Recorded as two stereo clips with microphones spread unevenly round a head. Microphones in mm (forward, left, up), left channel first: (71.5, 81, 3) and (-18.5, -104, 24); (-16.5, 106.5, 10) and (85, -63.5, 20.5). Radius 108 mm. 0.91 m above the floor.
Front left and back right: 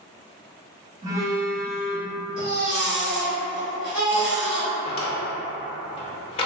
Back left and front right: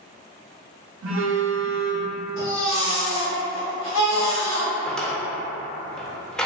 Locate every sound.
1.0 s a phone buzzing: 40° right, 0.7 m
2.4 s a baby crying: 160° left, 1.7 m
4.8 s a drawer: 30° left, 0.6 m